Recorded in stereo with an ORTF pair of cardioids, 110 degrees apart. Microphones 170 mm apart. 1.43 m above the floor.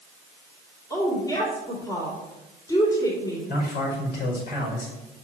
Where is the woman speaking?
20° left, 3 m.